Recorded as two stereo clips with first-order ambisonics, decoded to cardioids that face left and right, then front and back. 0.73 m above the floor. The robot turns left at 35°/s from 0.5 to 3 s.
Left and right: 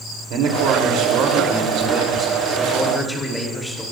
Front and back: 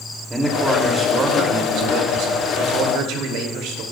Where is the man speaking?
100° right, 2.5 m; by 3.8 s 175° left, 2.5 m.